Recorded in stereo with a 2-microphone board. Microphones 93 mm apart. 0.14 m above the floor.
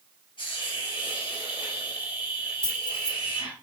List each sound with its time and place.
0.4 s a hiss: 55° left (ahead or behind), 3.5 m
2.6 s keys jangling: 55° left (ahead or behind), 2.5 m